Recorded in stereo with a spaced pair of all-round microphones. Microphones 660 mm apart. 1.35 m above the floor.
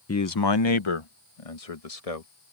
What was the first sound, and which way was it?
A man speaking, 25° left (ahead or behind).